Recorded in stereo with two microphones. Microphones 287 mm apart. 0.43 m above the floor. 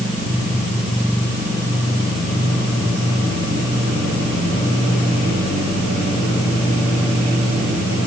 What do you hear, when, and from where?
Only background noise.